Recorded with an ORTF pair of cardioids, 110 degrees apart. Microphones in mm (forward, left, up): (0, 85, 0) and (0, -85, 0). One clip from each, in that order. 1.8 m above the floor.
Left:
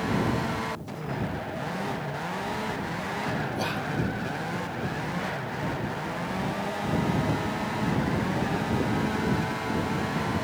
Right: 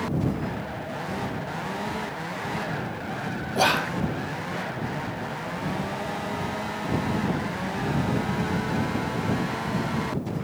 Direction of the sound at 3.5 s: 55° right.